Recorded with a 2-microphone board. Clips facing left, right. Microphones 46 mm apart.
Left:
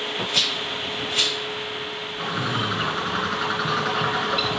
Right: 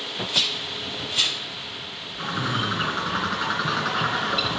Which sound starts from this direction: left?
A rattle, at 0.3 s.